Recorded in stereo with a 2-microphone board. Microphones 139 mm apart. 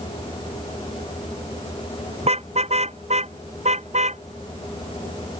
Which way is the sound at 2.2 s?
50° right (ahead or behind).